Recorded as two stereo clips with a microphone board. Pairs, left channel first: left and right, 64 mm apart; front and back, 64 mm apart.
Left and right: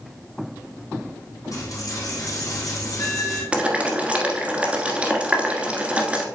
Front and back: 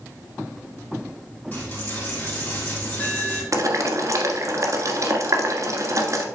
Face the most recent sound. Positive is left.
turn(degrees=-160)